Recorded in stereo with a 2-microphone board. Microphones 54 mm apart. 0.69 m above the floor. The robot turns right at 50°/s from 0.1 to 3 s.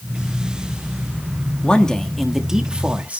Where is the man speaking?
150° left, 1.4 m; by 3.2 s 140° right, 1.4 m.